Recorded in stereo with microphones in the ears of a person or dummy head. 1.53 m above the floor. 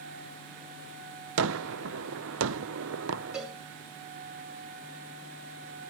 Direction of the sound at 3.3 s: 10° right (ahead or behind).